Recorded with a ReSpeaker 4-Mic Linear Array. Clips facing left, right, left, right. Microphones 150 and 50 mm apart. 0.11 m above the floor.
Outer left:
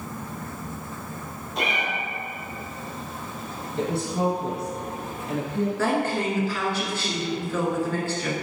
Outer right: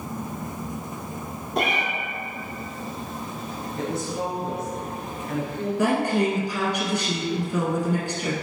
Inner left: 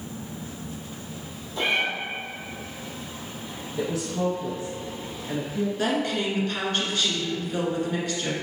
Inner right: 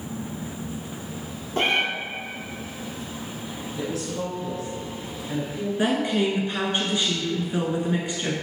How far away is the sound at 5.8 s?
About 1.3 m.